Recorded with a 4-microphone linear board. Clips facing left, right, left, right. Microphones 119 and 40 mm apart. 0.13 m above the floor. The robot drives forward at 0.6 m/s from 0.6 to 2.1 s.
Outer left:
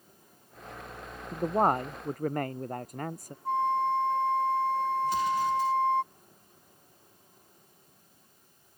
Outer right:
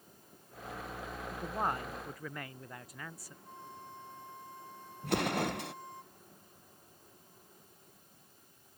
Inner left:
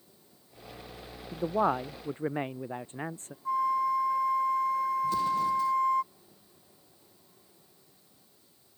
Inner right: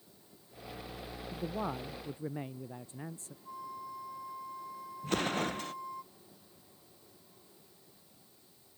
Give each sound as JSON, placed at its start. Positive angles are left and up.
{"t": 1.3, "sound": "a man speaking", "side_deg": 45}
{"t": 3.5, "sound": "a flute", "side_deg": 75}
{"t": 5.0, "sound": "an explosion", "side_deg": -70}